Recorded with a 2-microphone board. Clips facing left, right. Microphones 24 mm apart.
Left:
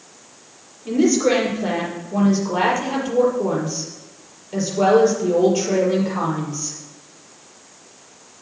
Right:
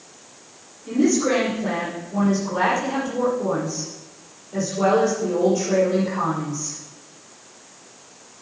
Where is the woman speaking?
35° left (ahead or behind), 5.5 m.